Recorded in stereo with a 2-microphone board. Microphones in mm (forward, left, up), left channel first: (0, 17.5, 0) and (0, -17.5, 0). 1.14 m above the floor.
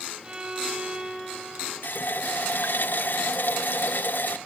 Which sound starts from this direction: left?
A running tap, at 1.8 s.